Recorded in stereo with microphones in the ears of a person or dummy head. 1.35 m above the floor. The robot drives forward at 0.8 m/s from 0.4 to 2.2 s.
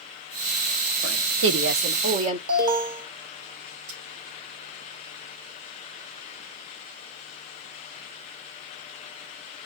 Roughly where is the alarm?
Right.